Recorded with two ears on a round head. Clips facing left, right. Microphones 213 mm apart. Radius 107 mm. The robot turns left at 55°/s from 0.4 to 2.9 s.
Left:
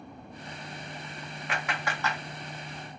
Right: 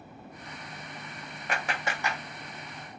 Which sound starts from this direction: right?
A clap, at 1.5 s.